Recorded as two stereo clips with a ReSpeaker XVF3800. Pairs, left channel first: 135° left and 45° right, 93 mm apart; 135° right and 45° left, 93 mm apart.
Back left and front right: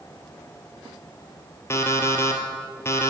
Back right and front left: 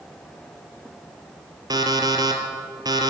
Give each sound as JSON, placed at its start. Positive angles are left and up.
{"t": 1.7, "sound": "an alarm clock", "azimuth_deg": 80, "distance_m": 1.1}